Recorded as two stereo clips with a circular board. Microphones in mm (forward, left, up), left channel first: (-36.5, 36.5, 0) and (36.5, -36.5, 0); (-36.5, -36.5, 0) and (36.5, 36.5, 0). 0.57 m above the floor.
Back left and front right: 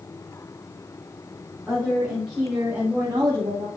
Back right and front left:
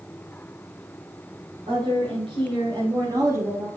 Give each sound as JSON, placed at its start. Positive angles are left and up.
{"t": 1.7, "sound": "a woman speaking", "azimuth_deg": 45, "distance_m": 3.5}